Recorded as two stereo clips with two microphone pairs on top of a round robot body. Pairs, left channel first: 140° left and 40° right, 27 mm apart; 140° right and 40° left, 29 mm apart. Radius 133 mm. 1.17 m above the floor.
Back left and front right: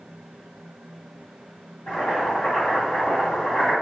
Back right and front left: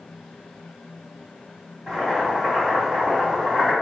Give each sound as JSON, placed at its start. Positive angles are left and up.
{"t": 1.9, "sound": "boiling", "azimuth_deg": 125, "distance_m": 1.7}